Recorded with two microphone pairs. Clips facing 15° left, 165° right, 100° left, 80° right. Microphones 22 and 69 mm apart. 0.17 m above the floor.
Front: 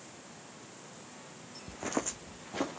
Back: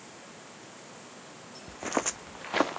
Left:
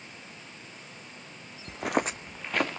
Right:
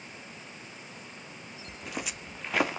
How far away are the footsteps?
About 0.7 m.